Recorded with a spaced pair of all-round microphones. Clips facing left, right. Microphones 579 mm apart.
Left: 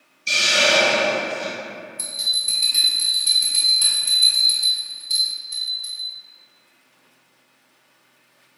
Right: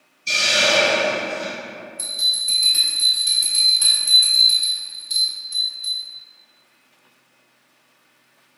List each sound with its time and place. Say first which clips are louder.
0.3 s a hiss: even; 10° right (ahead or behind), 1.6 m
2.0 s a bell: even; 10° left (ahead or behind), 0.8 m